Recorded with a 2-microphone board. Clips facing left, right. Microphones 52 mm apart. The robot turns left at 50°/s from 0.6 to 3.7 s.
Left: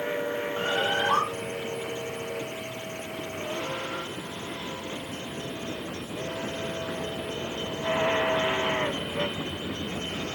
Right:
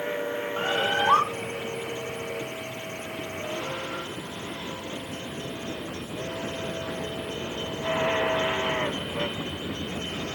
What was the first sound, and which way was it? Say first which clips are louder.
A bird: right 2 dB; 35° right.